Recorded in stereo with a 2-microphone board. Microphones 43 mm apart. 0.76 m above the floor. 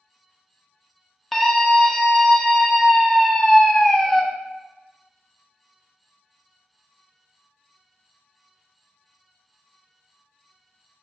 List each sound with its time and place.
1.3 s a scream: 5° left (ahead or behind), 0.6 m